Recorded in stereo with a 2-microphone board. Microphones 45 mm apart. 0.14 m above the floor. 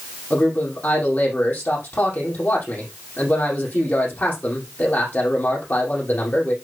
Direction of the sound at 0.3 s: 50° left (ahead or behind).